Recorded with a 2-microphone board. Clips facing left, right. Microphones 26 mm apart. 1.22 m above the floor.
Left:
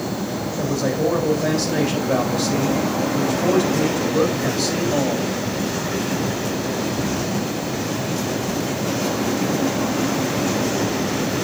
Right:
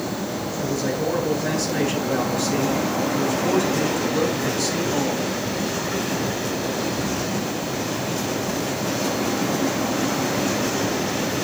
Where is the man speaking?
40° left (ahead or behind), 4.5 m.